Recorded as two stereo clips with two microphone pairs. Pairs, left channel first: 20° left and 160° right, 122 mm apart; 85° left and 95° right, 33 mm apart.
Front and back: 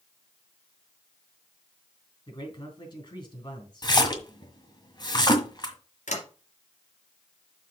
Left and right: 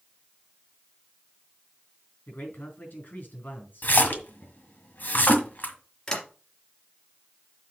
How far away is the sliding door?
About 2.5 m.